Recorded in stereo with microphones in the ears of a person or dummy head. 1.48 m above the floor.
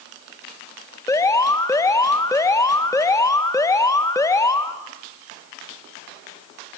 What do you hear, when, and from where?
1.1 s an alarm: 15° left (ahead or behind), 1.4 m